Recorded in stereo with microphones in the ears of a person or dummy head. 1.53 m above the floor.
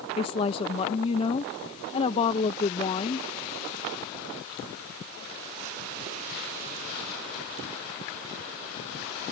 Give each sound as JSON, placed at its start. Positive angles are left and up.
{"t": 0.2, "sound": "a woman speaking", "side_deg": 35}